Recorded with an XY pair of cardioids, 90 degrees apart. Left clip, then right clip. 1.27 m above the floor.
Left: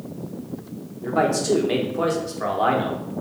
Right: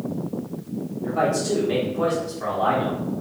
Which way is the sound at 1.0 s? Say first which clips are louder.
Left 2 dB; 60° left.